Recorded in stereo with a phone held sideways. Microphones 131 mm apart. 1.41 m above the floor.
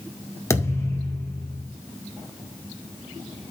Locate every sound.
0.5 s a thud: 25° left (ahead or behind), 1.8 m